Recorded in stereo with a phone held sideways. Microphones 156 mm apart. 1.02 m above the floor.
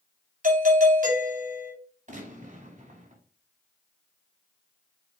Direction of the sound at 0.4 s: 55° right (ahead or behind).